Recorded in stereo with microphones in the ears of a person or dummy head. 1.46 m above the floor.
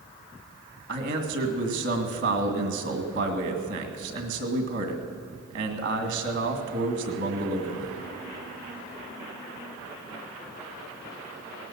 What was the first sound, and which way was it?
A man speaking, 60° right (ahead or behind).